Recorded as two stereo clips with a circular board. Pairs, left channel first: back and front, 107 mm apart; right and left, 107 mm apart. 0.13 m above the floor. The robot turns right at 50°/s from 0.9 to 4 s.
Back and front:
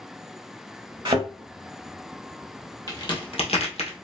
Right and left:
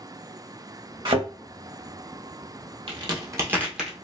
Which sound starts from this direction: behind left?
A crack, at 2.9 s.